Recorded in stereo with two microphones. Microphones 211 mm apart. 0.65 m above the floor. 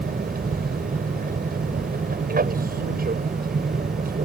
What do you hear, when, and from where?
0.0 s an aircraft: 45° right (ahead or behind)